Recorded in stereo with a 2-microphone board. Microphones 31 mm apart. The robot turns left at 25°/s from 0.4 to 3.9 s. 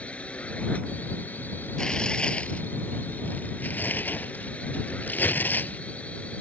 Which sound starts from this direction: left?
Tearing paper, at 1.8 s.